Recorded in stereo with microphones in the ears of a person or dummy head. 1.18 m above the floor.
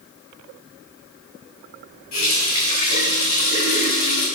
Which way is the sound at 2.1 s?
50° left (ahead or behind).